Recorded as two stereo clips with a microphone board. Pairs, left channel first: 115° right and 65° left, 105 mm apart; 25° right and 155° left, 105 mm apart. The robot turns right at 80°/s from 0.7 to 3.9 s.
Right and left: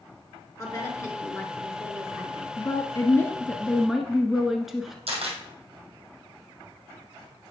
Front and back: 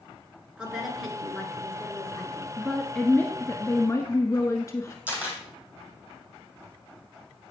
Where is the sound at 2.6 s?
125° right, 1.2 m; by 5.0 s 20° right, 1.2 m.